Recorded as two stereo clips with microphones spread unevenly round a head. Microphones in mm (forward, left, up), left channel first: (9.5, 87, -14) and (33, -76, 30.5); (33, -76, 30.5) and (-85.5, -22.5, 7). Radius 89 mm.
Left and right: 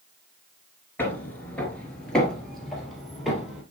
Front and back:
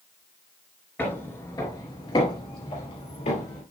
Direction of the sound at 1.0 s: Straight ahead.